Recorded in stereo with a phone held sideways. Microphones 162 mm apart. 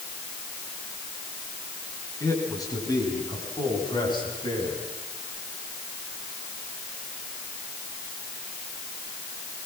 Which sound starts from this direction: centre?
A man speaking, at 2.2 s.